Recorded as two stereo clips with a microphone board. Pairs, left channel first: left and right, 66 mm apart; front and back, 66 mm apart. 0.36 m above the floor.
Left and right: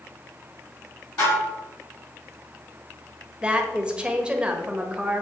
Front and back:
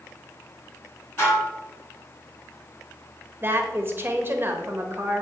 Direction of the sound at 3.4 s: 155° right.